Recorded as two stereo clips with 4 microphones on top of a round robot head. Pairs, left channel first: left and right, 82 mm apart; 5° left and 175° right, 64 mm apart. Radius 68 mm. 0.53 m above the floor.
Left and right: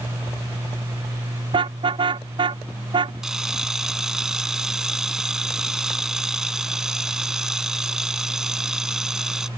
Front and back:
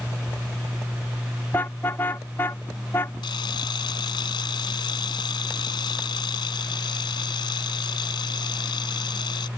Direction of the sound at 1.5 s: 60° right.